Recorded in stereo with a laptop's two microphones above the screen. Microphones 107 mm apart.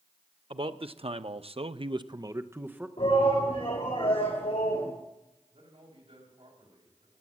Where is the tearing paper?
I don't hear tearing paper.